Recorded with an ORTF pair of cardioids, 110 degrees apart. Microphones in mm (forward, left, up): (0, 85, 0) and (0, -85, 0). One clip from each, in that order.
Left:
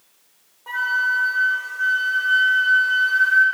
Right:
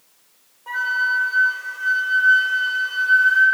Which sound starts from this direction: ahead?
A flute, at 0.7 s.